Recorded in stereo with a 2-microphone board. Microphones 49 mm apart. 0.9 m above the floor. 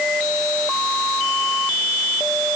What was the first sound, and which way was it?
Only background noise.